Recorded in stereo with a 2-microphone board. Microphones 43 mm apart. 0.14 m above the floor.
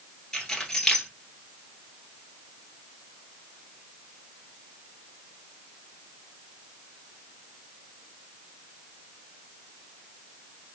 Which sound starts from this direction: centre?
Keys jangling, at 0.3 s.